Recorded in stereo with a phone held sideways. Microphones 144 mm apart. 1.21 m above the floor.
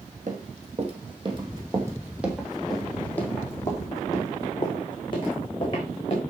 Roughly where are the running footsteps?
Right.